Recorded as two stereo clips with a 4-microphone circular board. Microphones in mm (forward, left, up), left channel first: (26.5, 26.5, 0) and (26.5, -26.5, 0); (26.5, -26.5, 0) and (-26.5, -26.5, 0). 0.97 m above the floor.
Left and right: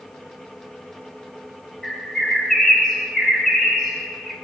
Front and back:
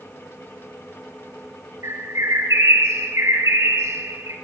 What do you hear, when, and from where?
1.8 s a bird: 170° left, 4 m